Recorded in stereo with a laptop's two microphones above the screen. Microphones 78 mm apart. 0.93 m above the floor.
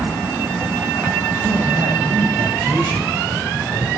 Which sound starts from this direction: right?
A man speaking, at 1.4 s.